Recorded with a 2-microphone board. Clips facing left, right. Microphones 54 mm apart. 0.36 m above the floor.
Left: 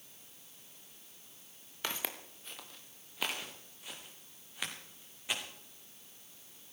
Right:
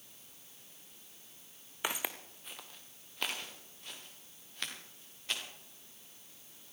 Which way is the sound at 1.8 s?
15° right (ahead or behind).